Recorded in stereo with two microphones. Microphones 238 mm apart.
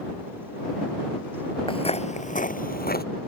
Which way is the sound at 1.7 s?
20° left (ahead or behind).